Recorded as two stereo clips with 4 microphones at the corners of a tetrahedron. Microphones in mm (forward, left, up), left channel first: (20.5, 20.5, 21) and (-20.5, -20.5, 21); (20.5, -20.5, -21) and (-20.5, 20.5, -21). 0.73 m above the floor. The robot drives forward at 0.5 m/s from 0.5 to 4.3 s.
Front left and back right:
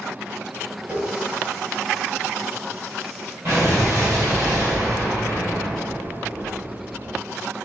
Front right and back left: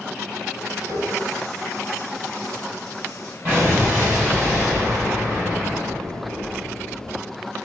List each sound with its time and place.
0.9 s a running tap: 160° left, 2.5 m; by 3.4 s 165° left, 4 m
3.5 s an explosion: straight behind, 4 m